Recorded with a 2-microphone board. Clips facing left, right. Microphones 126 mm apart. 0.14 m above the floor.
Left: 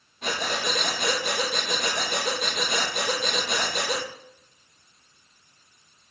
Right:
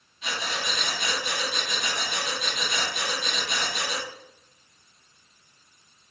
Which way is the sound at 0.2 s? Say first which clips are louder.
Left 4 dB; 55° left (ahead or behind).